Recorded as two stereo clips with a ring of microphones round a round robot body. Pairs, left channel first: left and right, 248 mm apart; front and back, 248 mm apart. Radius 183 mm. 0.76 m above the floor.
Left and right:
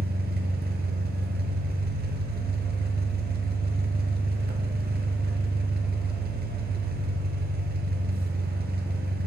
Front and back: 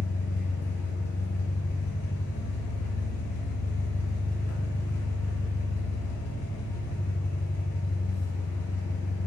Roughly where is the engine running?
Ahead right.